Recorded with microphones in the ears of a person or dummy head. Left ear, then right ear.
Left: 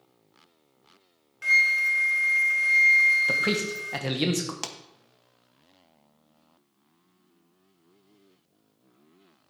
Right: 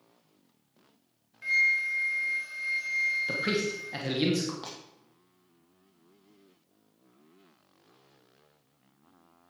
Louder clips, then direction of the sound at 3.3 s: Left 5 dB; 30° left (ahead or behind).